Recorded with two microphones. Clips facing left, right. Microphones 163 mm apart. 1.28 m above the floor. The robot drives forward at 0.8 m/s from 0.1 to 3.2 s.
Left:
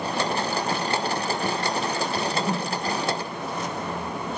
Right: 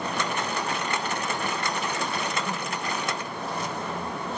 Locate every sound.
2.1 s a whoosh: 35° left (ahead or behind), 0.9 m; by 2.9 s 40° left (ahead or behind), 0.8 m